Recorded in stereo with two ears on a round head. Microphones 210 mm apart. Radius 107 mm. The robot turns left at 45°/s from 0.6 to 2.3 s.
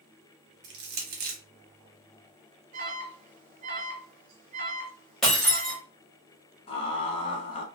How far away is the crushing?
About 1.0 m.